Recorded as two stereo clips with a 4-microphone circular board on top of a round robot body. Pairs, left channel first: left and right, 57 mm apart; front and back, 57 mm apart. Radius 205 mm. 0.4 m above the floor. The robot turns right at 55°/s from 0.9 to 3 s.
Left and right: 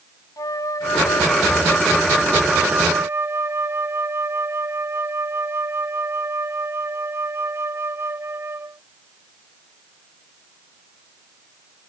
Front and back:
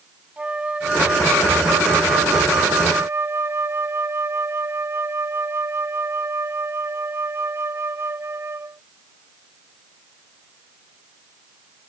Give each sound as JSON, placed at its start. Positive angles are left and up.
{"t": 0.4, "sound": "a flute", "azimuth_deg": 110}